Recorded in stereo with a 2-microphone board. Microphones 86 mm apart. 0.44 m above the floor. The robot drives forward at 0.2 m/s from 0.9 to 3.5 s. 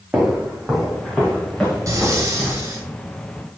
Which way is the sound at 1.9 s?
40° right (ahead or behind).